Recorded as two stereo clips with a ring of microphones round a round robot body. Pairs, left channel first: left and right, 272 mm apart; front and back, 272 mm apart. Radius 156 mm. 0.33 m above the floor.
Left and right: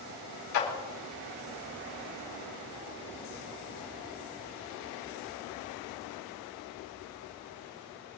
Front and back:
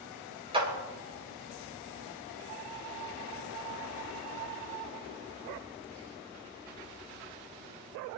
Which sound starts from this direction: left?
A clap, at 0.5 s.